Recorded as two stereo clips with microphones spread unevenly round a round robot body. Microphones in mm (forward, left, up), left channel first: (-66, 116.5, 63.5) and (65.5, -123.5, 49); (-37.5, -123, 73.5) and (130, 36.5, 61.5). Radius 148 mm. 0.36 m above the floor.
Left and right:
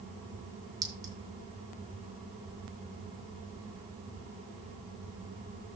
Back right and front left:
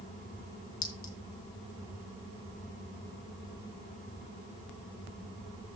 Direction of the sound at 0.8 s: 140° right.